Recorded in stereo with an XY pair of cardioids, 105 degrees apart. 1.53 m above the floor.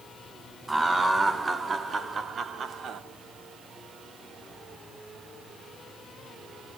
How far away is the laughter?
About 1.8 m.